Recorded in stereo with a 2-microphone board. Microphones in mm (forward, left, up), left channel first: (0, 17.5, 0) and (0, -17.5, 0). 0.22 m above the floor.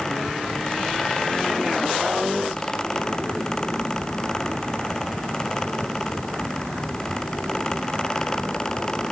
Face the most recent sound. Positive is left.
No sound to turn to.